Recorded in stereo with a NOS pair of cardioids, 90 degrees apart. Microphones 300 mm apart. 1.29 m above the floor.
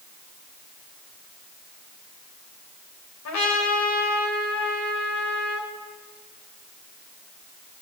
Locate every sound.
3.2 s a trumpet: 60° left, 5 m